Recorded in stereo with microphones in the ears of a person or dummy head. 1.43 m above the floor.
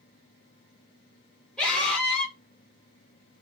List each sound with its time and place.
1.6 s a scream: 5° left (ahead or behind), 4.5 m